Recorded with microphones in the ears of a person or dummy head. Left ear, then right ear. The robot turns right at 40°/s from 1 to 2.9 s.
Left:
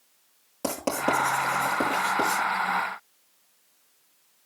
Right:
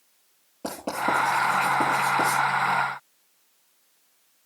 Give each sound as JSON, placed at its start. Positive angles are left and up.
{"t": 0.6, "sound": "writing", "side_deg": 55, "distance_m": 8.5}